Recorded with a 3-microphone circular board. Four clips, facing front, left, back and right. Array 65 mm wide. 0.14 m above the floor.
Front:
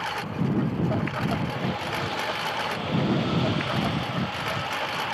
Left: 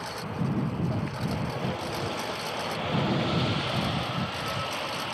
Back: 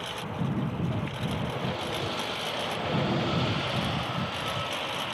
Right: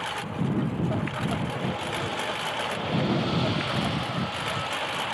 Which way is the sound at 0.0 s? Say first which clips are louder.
Right 2 dB, front 5 dB; 20° right.